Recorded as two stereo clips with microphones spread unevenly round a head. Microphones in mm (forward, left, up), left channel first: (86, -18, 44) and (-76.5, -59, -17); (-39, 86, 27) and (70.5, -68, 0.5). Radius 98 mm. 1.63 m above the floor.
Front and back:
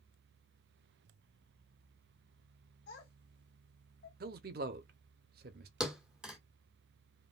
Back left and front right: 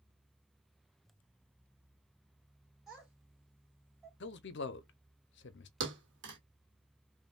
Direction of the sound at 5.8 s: 65° right.